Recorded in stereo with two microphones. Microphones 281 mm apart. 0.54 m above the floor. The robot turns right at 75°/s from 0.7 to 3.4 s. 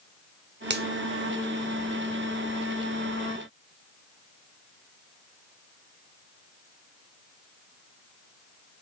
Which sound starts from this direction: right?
A finger snap, at 0.7 s.